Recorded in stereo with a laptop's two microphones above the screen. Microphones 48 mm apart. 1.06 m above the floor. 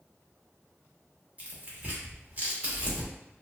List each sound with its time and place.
1.4 s tearing paper: 35° right (ahead or behind), 0.8 m